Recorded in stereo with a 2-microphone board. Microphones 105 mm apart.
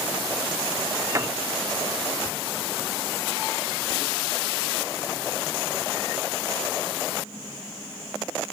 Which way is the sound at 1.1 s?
30° right (ahead or behind).